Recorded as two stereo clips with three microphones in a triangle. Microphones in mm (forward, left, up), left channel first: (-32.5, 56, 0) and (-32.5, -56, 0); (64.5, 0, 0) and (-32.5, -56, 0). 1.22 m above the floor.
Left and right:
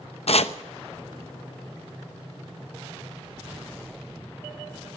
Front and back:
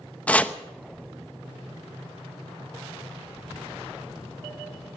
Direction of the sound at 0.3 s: 105° left.